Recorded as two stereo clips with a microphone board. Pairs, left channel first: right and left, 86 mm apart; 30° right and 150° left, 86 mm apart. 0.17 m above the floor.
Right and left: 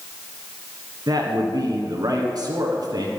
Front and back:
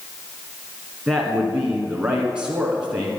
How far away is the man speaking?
About 1.9 m.